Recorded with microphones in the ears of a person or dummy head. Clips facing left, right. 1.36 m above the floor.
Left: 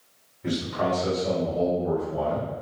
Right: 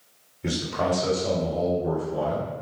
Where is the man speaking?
45° right (ahead or behind), 1.8 m; by 2.5 s 35° right (ahead or behind), 3 m.